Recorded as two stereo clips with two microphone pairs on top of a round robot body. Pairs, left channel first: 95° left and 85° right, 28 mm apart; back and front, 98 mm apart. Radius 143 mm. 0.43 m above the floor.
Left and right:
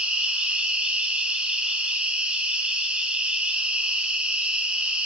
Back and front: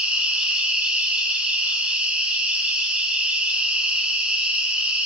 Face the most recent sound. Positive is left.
turn(degrees=-65)